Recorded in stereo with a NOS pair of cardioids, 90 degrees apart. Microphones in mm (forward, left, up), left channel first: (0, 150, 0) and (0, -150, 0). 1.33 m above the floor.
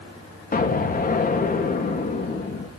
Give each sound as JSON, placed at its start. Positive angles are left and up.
{"t": 0.5, "sound": "an explosion", "azimuth_deg": 30, "distance_m": 2.5}